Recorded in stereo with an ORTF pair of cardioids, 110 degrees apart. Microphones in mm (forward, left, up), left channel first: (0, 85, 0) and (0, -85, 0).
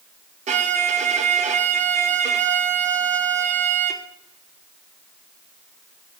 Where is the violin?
45° right, 0.8 m.